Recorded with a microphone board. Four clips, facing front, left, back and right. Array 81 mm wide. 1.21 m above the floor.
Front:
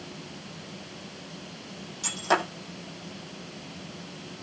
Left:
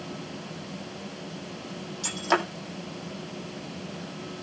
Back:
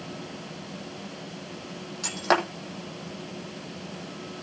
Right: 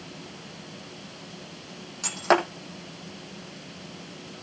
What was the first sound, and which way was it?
Breaking glass, 120° right.